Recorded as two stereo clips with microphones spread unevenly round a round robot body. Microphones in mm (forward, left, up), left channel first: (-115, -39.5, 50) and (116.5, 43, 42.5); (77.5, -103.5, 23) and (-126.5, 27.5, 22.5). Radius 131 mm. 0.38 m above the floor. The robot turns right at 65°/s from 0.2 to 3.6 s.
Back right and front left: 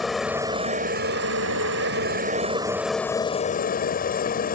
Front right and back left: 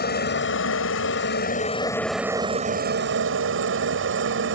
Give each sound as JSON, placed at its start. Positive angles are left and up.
{"t": 0.0, "sound": "a helicopter", "azimuth_deg": -70}